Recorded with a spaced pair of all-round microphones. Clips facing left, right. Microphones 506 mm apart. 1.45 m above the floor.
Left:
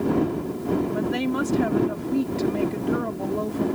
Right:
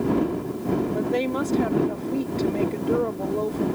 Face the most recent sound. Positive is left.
turn(degrees=30)  # may be behind; listen again after turning